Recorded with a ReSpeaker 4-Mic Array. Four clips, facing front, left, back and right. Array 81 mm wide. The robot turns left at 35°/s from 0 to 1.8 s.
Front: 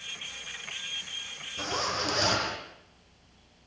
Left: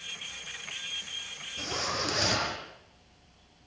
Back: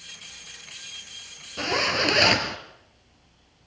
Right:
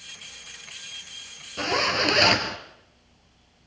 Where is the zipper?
130° right, 2.5 m; by 2.6 s 140° right, 2.5 m.